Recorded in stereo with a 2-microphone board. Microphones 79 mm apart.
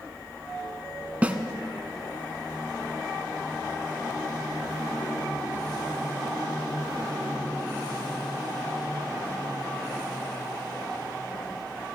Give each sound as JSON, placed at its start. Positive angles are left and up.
{"t": 1.2, "sound": "a snare drum", "side_deg": -20, "distance_m": 0.9}